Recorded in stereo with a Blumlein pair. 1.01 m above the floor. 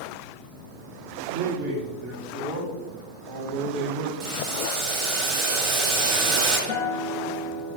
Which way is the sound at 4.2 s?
30° right.